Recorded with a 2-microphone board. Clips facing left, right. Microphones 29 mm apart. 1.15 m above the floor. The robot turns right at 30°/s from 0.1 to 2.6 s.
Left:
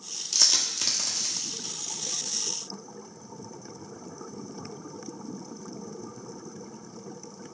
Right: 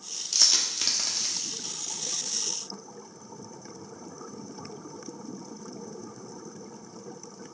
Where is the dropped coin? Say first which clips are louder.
Even; centre (ahead or behind), 0.8 m; by 1.5 s 25° right (ahead or behind), 0.8 m.